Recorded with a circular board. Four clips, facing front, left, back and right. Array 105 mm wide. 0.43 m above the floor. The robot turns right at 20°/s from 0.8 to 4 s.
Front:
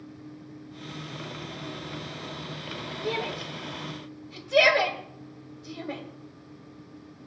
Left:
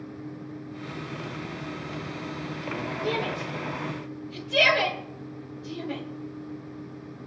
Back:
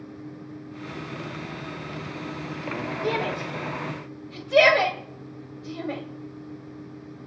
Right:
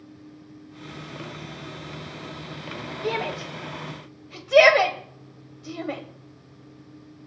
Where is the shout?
125° right, 1.8 m; by 6.0 s 105° right, 1.8 m.